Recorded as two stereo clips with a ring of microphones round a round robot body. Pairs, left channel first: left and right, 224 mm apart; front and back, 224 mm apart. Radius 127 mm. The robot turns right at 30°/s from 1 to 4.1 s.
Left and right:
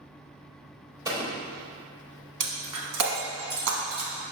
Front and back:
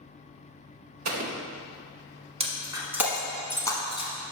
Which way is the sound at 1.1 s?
165° right.